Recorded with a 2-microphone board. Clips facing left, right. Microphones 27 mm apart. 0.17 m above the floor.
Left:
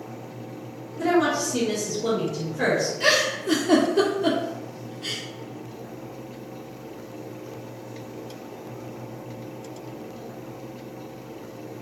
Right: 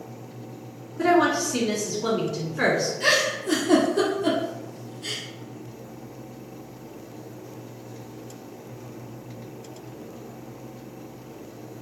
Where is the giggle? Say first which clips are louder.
Left 1 dB; 20° left (ahead or behind), 1.2 m.